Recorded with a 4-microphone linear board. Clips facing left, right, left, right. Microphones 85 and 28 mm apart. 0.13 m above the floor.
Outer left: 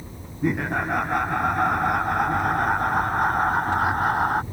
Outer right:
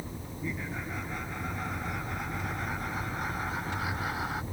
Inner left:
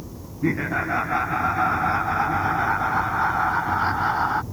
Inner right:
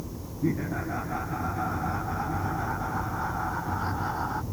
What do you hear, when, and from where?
0.4 s laughter: 65° left (ahead or behind); by 4.4 s 50° left (ahead or behind)